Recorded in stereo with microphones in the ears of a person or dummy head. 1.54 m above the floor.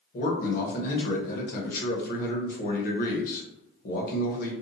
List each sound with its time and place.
0.1 s a man speaking: 45° left (ahead or behind), 0.9 m